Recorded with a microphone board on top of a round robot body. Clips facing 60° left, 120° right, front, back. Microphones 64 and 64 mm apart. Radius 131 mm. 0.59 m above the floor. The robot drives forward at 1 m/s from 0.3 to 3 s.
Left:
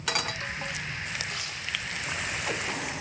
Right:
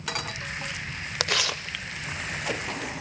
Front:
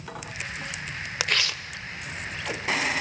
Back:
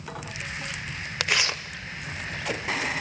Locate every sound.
1.2 s tearing paper: 85° right, 0.5 m; by 2.8 s 165° right, 1.6 m